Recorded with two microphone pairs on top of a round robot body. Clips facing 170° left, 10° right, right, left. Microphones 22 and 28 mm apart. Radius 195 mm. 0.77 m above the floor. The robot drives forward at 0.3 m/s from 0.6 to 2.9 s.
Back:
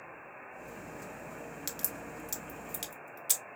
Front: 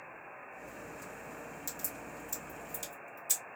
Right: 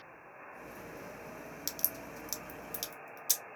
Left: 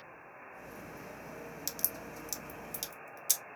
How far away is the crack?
About 1.0 m.